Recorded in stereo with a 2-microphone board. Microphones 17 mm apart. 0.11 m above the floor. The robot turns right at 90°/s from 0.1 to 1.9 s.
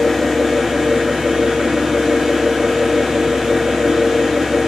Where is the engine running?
165° left, 1.6 m; by 4.7 s 35° right, 1.6 m.